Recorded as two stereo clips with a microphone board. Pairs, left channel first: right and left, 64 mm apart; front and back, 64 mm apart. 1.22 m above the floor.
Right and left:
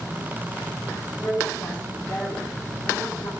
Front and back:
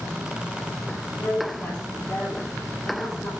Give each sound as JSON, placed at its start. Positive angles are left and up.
{"t": 1.1, "sound": "a woman speaking", "azimuth_deg": -40, "distance_m": 5.0}